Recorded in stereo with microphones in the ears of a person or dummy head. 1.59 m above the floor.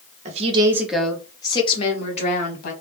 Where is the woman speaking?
40° right (ahead or behind), 0.6 m; by 2.7 s 50° left (ahead or behind), 1.4 m.